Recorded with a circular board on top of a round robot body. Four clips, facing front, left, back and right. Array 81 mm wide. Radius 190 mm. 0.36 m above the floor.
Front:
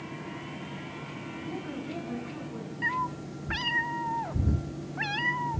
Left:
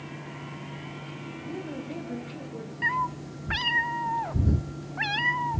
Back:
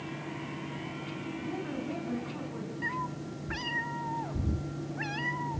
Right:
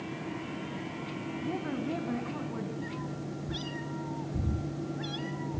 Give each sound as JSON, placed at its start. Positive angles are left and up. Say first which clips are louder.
{"t": 1.4, "sound": "a woman speaking", "louder": "right 2 dB, even", "azimuth_deg": -95, "distance_m": 5.0}
{"t": 2.8, "sound": "a cat meowing", "louder": "left 9 dB, front 6 dB", "azimuth_deg": 70, "distance_m": 0.7}